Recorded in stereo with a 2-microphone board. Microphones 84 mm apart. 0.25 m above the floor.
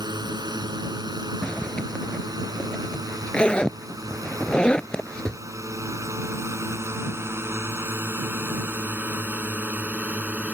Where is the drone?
60° right (ahead or behind); by 10.6 s 20° right (ahead or behind).